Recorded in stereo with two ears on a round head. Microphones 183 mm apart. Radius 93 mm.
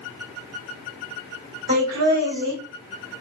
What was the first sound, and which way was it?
Laughter, 65° right (ahead or behind).